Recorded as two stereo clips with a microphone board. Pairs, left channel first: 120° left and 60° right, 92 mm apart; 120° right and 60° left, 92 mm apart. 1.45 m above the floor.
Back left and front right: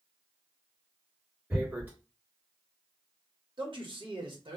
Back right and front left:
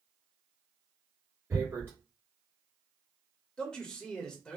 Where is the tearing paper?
5° left, 1.6 m.